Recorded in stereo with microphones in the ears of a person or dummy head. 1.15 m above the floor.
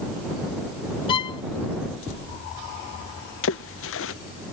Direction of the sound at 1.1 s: 25° left (ahead or behind).